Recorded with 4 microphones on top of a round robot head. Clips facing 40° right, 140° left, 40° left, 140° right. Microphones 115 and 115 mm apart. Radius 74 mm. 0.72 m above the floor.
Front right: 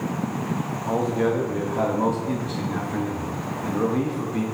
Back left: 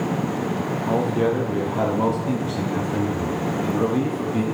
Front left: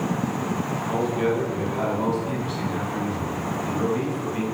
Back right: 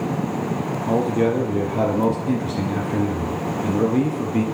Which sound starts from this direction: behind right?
A man speaking, at 0.9 s.